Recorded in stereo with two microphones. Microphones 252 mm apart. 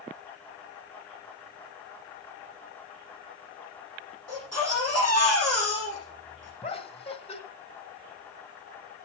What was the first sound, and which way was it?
A baby crying, 75° right (ahead or behind).